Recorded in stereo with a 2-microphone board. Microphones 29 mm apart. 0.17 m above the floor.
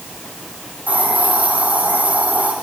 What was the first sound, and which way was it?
A hiss, 75° right (ahead or behind).